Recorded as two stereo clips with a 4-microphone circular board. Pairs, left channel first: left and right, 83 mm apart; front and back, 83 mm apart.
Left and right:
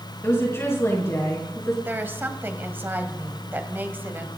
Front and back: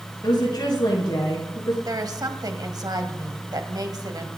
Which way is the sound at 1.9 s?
150° right.